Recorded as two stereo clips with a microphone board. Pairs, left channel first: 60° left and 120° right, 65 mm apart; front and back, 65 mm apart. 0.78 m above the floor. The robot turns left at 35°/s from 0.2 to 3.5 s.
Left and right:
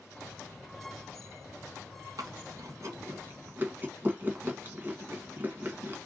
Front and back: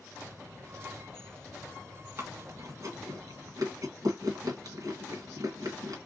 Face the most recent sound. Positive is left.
turn(degrees=180)